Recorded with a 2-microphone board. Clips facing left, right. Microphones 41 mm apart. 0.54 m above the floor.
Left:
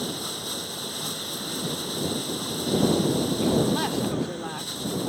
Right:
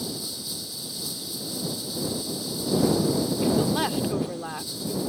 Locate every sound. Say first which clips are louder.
0.0 s running water: left 3 dB; 50° left (ahead or behind)
3.4 s a woman speaking: even; 10° right (ahead or behind)